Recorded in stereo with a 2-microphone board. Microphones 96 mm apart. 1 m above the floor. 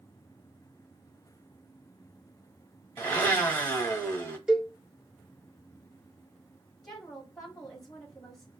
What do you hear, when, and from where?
3.0 s a blender: 20° left (ahead or behind), 1.2 m
4.5 s a cowbell: 10° right (ahead or behind), 1.1 m
6.8 s a woman speaking: 5° left (ahead or behind), 2.5 m